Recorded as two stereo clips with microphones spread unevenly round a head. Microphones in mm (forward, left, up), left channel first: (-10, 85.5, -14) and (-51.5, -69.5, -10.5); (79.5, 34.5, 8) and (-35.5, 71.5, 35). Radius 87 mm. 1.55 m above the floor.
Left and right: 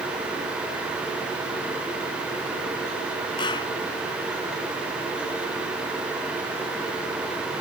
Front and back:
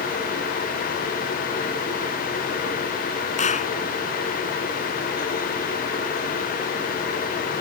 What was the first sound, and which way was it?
A clap, 10° left.